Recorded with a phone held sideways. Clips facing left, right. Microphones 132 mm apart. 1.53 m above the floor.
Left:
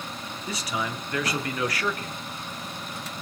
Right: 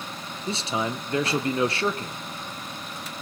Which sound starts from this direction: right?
A man speaking, at 0.5 s.